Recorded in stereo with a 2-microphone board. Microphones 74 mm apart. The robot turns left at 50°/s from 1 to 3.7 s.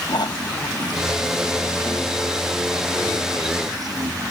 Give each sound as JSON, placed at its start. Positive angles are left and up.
{"t": 0.1, "sound": "snoring", "azimuth_deg": 75}